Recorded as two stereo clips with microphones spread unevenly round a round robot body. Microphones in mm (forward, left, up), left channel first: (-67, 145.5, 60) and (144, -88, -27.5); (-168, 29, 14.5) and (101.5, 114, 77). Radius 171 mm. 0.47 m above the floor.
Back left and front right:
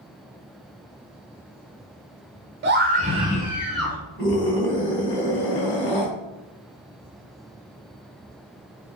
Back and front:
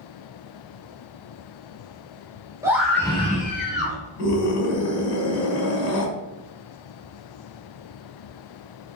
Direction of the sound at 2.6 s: 70° right.